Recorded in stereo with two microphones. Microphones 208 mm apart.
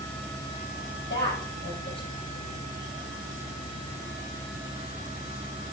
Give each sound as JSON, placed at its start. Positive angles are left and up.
{"t": 1.1, "sound": "a woman speaking", "side_deg": 60, "distance_m": 4.0}